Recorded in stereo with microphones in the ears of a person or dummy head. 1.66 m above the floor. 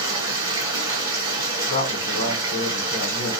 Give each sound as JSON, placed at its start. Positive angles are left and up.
{"t": 0.0, "sound": "running water", "side_deg": -15, "distance_m": 1.0}
{"t": 1.7, "sound": "a woman speaking", "side_deg": 35, "distance_m": 0.9}